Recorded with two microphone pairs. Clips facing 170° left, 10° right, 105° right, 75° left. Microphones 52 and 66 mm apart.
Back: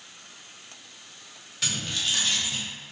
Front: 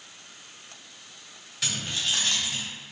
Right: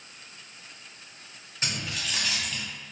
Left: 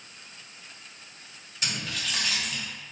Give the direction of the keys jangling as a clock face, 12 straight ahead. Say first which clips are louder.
Even, even; 3 o'clock.